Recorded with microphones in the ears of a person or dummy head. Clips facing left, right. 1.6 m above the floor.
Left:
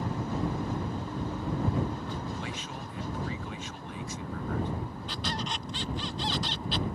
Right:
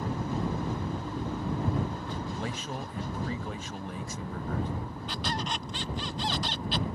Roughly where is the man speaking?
Right.